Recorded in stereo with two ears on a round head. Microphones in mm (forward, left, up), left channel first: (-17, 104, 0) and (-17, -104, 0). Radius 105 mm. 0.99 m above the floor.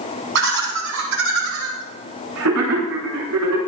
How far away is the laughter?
About 8 m.